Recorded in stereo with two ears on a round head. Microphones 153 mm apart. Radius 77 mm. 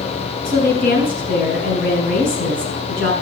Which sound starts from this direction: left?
A woman speaking, at 0.5 s.